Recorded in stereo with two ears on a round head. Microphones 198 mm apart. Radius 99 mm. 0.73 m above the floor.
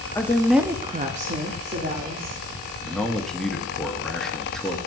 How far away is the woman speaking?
About 1.0 m.